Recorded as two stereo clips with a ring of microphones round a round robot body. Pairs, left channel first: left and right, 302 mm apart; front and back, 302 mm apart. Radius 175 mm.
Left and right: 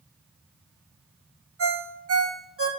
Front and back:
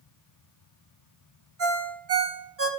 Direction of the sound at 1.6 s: 135° right.